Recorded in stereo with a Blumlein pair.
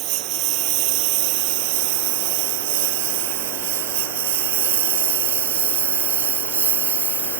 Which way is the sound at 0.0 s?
40° right.